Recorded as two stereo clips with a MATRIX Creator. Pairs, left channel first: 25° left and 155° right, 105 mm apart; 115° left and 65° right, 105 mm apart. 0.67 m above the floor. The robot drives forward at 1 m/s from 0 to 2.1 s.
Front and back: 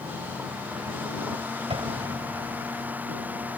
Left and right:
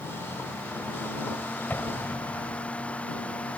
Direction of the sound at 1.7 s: 175° right.